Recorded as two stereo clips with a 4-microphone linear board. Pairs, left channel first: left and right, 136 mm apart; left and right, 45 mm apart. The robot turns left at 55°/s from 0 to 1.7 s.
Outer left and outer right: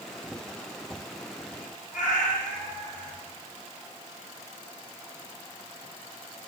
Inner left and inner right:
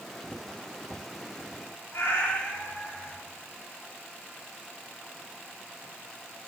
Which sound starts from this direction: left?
A cat meowing, at 1.9 s.